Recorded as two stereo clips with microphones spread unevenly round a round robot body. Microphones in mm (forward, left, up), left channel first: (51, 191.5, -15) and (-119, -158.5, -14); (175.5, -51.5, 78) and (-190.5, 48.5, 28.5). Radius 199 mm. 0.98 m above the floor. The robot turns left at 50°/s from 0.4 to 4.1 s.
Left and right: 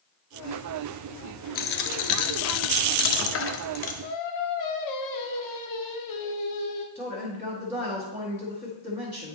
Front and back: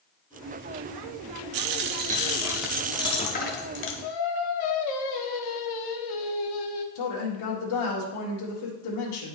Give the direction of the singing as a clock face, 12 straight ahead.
11 o'clock.